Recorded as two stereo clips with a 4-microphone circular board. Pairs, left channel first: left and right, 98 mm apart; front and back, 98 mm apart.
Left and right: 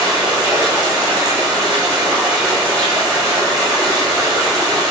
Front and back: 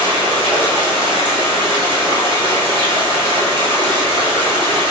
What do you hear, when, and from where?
0.0 s running water: 140° right, 1.8 m